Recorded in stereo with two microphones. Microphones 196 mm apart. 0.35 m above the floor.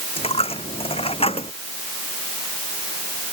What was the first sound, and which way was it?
A dropped coin, 30° left (ahead or behind).